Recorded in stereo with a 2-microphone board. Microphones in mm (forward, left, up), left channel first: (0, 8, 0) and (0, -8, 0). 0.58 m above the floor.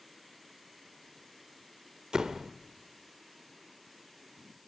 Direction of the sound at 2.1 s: 45° right (ahead or behind).